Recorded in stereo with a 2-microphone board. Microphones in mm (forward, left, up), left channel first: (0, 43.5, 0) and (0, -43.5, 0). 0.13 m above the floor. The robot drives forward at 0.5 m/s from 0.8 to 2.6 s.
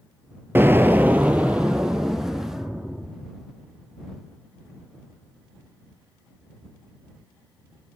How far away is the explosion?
About 0.5 m.